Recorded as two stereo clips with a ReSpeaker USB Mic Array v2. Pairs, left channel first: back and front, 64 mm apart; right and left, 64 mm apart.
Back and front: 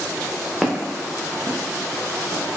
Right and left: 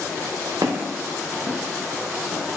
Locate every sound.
0.6 s footsteps: 80° left, 0.8 m; by 2.4 s straight ahead, 1.8 m